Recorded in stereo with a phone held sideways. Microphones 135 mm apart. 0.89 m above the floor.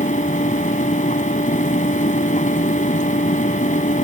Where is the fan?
70° left (ahead or behind).